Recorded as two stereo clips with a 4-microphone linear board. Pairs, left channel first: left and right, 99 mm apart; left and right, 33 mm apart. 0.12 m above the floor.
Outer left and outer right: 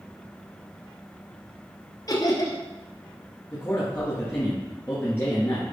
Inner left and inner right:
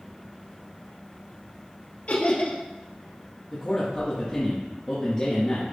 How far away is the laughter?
About 2.5 m.